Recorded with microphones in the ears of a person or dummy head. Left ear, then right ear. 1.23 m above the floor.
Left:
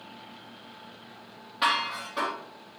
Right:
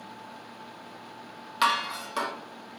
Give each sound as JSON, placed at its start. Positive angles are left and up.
{"t": 1.6, "sound": "dishes clattering", "side_deg": -70, "distance_m": 0.9}